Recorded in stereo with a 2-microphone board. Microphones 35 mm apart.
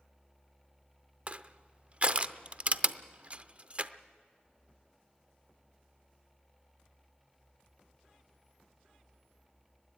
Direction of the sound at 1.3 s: 35° right (ahead or behind).